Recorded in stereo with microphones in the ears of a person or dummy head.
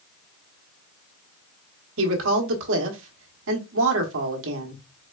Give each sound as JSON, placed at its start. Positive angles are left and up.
{"t": 2.0, "sound": "a woman speaking", "side_deg": -75, "distance_m": 1.2}